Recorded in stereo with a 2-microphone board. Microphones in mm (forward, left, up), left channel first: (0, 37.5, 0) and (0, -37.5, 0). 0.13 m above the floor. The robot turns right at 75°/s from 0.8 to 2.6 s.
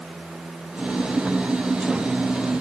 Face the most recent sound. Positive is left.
No sound to turn to.